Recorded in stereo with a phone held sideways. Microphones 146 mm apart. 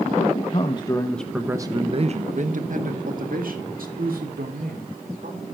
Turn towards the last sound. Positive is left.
turn(degrees=-85)